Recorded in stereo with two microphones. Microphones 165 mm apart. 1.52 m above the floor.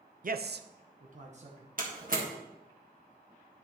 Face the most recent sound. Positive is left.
turn(degrees=-55)  # may be behind; listen again after turning